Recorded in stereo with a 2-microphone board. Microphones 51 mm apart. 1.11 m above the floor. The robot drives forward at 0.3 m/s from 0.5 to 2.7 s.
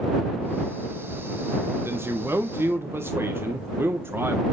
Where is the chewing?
I don't hear chewing.